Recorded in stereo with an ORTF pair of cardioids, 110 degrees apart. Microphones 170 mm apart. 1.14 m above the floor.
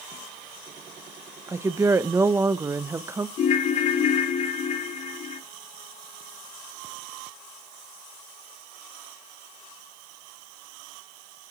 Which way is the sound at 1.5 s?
15° right.